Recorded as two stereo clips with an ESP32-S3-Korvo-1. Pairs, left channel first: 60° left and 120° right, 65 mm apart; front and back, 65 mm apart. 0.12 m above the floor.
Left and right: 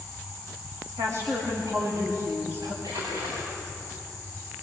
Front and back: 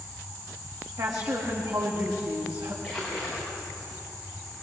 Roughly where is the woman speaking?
Behind.